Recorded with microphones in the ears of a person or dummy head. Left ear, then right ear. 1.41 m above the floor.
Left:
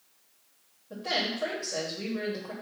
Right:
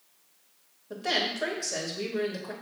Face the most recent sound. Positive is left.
turn(degrees=-80)